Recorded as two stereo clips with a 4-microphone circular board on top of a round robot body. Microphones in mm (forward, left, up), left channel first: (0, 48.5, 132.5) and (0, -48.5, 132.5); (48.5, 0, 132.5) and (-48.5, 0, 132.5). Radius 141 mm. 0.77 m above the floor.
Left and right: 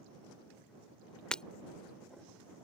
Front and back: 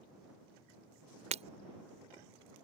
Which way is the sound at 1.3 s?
170° left.